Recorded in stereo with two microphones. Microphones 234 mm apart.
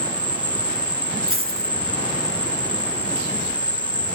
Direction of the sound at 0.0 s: 5° right (ahead or behind).